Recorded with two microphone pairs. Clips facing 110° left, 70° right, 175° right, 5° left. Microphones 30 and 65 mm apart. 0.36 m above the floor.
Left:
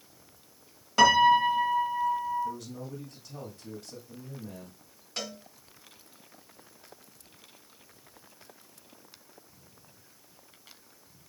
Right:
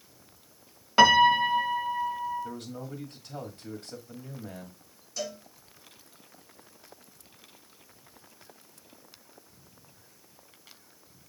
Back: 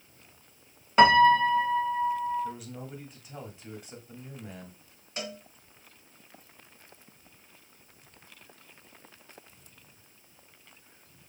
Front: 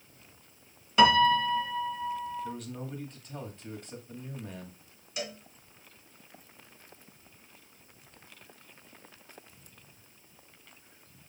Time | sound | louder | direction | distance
1.0 | a piano | right 1 dB, back 3 dB | 135° right | 1.0 m
2.4 | a man speaking | left 2 dB, even | 95° right | 1.8 m
5.2 | a cowbell | right 2 dB, even | 135° left | 1.6 m